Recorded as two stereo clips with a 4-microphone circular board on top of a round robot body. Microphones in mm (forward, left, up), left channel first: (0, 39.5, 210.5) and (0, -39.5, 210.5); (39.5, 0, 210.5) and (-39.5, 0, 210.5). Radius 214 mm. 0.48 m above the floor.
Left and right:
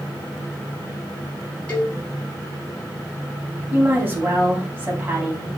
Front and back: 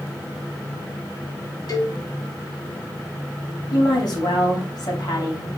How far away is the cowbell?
About 5 m.